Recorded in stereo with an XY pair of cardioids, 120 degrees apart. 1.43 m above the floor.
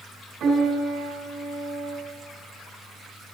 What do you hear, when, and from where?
0.4 s a piano: 60° right, 5.5 m